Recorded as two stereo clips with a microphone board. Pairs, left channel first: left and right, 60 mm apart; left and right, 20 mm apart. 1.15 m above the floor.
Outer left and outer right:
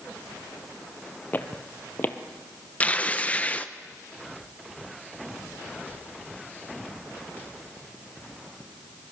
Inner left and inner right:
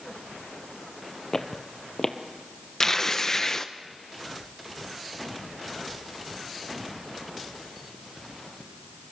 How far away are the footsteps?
About 1.4 m.